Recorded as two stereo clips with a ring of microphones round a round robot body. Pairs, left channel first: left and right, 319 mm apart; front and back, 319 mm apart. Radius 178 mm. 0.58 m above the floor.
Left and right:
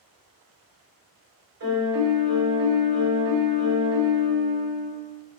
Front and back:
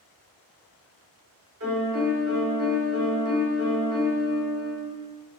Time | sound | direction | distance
1.6 | a piano | 140° right | 1.6 m